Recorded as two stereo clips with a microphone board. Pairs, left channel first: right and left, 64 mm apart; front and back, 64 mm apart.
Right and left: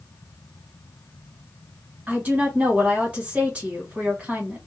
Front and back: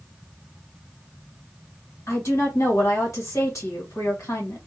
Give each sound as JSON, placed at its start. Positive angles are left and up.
{"t": 2.1, "sound": "a woman speaking", "azimuth_deg": 25, "distance_m": 1.6}